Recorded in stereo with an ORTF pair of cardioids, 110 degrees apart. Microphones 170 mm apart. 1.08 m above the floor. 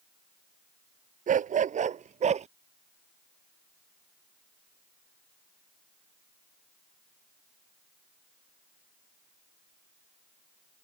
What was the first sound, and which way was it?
A dog barking, 50° right.